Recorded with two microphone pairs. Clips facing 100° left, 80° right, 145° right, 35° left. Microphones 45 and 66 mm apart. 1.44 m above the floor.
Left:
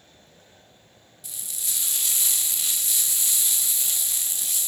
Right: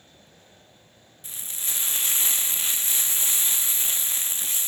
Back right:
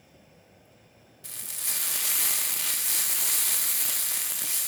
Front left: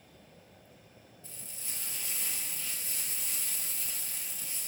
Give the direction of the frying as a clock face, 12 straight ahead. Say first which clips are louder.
Right 1 dB, back right 8 dB; 5 o'clock.